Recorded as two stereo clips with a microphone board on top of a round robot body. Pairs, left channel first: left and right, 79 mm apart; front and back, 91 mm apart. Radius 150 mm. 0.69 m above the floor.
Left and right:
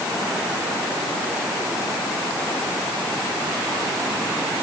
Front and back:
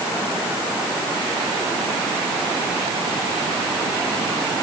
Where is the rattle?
I don't hear a rattle.